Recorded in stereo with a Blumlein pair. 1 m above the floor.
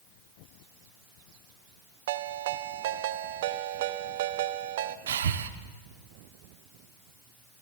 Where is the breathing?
60° right, 0.8 m.